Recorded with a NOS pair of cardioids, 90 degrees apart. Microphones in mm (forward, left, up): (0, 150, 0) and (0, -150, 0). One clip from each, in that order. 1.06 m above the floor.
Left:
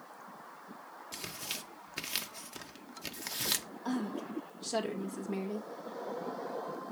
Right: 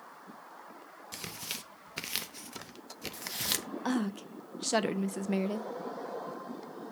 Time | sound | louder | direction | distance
1.1 | tearing paper | right 1 dB | 10° right | 0.8 m
3.9 | a woman speaking | right 3 dB | 55° right | 0.9 m